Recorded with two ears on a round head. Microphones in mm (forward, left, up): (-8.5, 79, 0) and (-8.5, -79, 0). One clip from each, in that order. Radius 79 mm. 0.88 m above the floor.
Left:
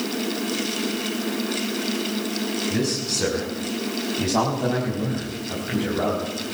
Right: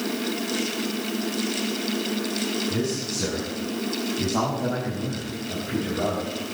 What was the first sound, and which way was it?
A man speaking, 80° left.